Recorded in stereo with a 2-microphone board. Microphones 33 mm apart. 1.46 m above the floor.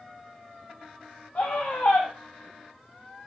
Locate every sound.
1.4 s a scream: 70° left (ahead or behind), 1.1 m